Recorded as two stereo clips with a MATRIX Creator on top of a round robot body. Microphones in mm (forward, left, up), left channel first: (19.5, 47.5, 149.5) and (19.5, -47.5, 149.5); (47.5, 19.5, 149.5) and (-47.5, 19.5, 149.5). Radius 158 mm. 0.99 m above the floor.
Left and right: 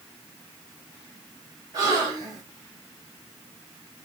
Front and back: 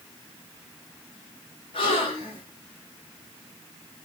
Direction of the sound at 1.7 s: 40° right.